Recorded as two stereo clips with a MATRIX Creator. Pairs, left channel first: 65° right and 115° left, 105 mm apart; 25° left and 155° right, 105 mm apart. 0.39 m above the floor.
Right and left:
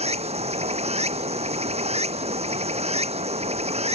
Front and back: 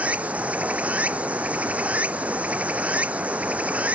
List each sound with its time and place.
0.0 s running water: 125° left